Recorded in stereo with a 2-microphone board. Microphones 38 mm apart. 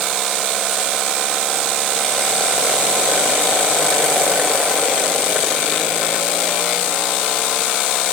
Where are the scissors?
I don't hear scissors.